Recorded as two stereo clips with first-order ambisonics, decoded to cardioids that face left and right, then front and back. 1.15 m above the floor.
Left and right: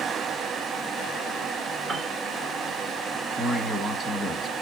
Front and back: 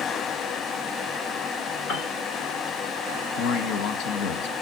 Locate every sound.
1.9 s a piano: 25° right, 1.8 m
3.4 s a man speaking: 5° right, 1.3 m